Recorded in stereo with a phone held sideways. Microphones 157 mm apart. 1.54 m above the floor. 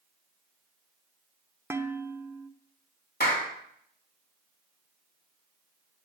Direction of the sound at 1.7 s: 15° right (ahead or behind).